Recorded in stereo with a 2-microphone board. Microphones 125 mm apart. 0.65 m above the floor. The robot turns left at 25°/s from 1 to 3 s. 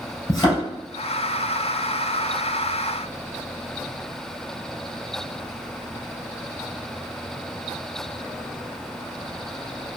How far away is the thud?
About 1.7 m.